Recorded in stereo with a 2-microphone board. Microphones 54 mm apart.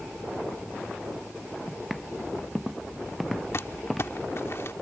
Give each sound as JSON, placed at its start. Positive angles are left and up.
{"t": 1.7, "sound": "footsteps", "side_deg": 0}
{"t": 3.5, "sound": "crumpling", "side_deg": 55}